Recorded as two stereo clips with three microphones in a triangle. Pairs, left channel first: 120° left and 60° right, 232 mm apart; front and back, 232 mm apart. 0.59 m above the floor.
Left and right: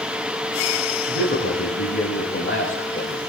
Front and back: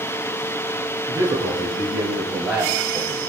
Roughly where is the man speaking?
Left.